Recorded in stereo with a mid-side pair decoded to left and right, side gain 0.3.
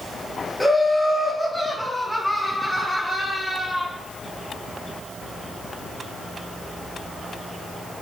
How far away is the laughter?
About 2.5 m.